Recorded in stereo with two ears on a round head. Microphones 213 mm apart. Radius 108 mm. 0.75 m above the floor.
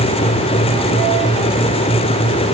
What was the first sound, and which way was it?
Only background noise.